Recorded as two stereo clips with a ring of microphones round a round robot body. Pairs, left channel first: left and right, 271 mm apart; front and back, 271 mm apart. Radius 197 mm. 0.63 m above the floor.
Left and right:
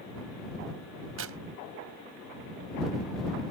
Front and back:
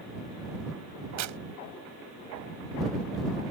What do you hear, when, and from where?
1.2 s tearing paper: 145° right